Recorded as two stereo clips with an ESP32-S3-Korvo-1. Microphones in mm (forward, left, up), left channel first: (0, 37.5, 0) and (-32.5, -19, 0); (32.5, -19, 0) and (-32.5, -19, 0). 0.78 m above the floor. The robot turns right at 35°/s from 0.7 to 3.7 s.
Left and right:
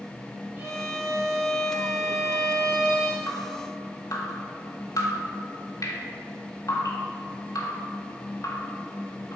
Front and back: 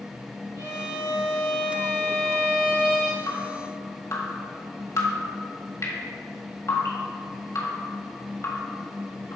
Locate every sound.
0.6 s a violin: straight behind, 1.7 m; by 3.2 s 95° right, 1.7 m
3.3 s dripping: 20° left, 1.5 m; by 9.4 s 35° left, 1.5 m